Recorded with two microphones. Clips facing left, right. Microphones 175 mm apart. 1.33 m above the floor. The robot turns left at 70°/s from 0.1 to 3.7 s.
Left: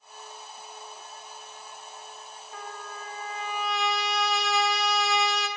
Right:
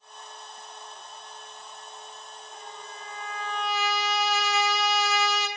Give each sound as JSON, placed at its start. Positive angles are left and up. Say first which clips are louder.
{"t": 2.5, "sound": "a trumpet", "louder": "left 5 dB", "azimuth_deg": 80, "distance_m": 0.6}